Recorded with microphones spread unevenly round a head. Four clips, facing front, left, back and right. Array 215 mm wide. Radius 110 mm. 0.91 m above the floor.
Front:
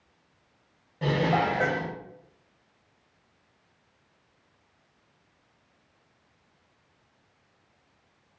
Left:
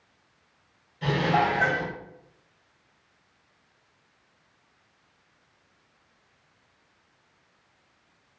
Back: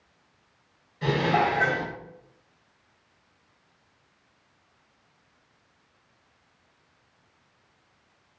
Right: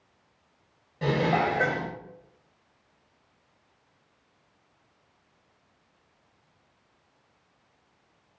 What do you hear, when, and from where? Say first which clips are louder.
1.0 s dishes clattering: left 1 dB, back 1 dB; 45° right, 1.0 m